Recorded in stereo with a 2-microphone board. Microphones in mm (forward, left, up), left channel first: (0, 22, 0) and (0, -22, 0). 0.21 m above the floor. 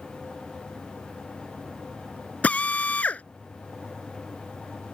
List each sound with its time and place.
2.4 s a drill: 35° left (ahead or behind)